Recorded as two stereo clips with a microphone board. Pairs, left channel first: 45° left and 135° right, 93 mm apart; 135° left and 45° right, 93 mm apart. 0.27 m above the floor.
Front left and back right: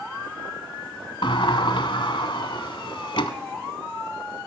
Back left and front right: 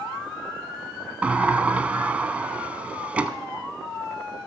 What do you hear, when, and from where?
1.2 s a sliding door: 30° left, 0.9 m